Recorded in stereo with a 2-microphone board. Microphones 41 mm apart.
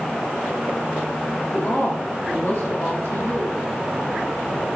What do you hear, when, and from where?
1.5 s a woman speaking: 65° left (ahead or behind), 1.3 m